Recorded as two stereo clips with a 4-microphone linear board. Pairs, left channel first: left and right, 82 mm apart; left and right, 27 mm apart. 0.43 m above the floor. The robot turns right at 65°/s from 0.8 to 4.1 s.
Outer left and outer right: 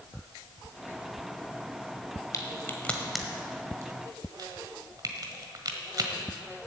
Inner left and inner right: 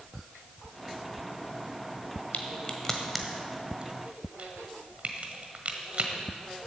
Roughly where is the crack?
Left.